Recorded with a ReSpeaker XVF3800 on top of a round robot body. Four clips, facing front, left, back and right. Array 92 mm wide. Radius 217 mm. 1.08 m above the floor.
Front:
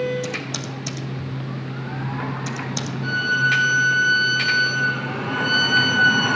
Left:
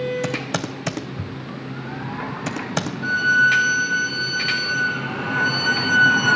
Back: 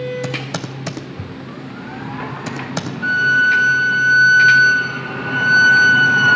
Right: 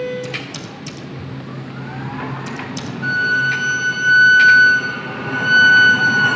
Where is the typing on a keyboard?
125° left, 0.5 m.